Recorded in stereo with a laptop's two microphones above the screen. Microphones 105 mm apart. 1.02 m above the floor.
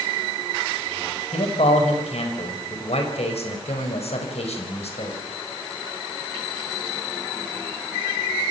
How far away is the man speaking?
About 4.5 m.